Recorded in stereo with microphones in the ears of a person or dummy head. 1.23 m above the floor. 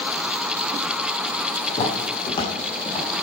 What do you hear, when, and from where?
1.7 s footsteps: 35° left (ahead or behind), 4.5 m; by 3.1 s 30° left (ahead or behind), 6 m